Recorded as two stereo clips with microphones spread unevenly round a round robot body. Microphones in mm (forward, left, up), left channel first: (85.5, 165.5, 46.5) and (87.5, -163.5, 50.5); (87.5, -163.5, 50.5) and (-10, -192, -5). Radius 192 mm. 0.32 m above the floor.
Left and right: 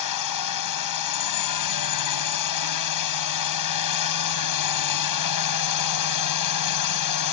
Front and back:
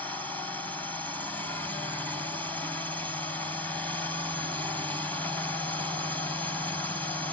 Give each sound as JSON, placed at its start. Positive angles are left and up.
{"t": 0.0, "sound": "a drone", "azimuth_deg": 115}